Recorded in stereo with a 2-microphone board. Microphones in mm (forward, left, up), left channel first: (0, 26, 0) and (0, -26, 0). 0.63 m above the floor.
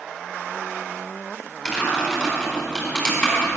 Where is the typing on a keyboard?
15° left (ahead or behind), 4 m.